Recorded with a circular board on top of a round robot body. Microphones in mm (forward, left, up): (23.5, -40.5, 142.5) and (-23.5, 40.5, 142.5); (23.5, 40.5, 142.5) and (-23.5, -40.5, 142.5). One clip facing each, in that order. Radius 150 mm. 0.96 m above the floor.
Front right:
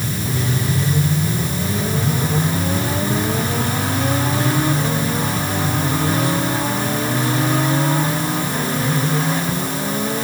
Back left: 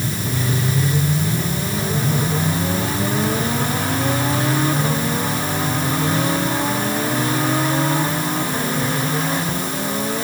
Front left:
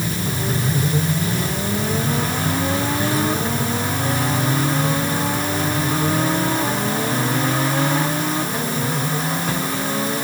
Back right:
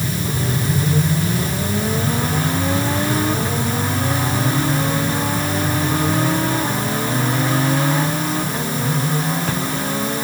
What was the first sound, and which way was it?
Only background noise.